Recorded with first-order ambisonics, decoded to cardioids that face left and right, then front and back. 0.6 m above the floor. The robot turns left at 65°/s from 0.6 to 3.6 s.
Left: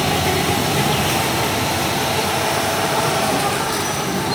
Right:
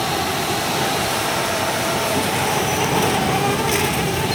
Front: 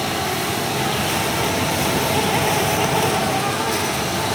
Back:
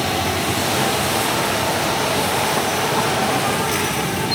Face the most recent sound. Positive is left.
turn(degrees=-100)